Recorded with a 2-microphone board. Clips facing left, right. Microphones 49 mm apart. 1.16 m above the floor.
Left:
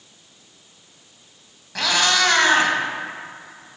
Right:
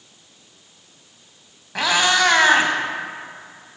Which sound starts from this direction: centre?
A cat meowing, at 1.8 s.